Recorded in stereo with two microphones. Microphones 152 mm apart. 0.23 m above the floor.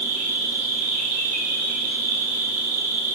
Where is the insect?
45° right (ahead or behind), 3.5 m.